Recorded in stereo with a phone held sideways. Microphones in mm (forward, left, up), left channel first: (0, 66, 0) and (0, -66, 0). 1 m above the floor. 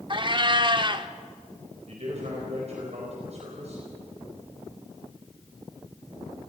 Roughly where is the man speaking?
Right.